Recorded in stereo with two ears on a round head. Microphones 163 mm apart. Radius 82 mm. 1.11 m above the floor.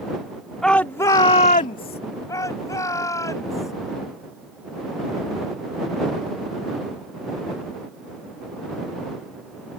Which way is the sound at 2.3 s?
15° left (ahead or behind).